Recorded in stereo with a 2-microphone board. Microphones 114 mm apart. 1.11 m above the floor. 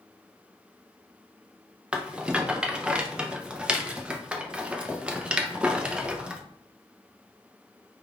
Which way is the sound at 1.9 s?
10° right (ahead or behind).